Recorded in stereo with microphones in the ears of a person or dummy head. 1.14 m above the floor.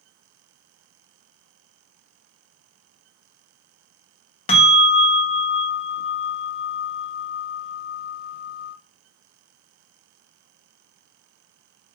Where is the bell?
35° left (ahead or behind), 0.9 m.